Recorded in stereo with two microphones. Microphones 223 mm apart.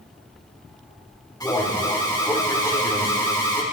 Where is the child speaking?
I don't hear a child speaking.